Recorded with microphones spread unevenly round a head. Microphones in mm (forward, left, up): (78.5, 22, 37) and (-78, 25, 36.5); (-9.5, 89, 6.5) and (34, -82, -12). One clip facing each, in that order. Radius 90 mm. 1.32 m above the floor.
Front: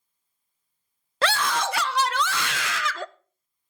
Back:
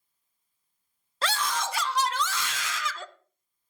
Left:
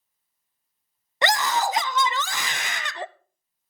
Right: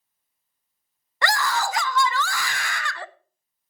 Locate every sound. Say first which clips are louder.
1.2 s a scream: front 5 dB, left 2 dB; 35° left, 0.6 m